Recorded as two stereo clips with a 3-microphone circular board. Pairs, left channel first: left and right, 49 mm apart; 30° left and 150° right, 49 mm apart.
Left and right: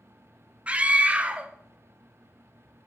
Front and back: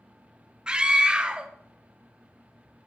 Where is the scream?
100° right, 0.8 m.